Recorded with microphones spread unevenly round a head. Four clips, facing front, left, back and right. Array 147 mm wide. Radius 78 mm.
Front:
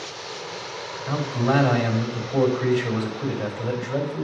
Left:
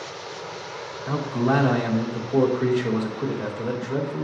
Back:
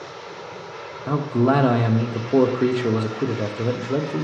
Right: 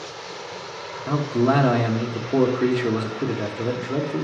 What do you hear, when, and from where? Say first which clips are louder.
1.1 s a man speaking: right 3 dB, back 4 dB; 155° right, 1.0 m